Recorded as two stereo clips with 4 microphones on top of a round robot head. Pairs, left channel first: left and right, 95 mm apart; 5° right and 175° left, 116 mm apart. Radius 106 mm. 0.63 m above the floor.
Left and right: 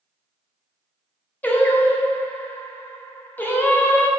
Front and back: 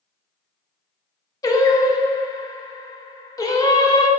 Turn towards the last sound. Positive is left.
turn(degrees=30)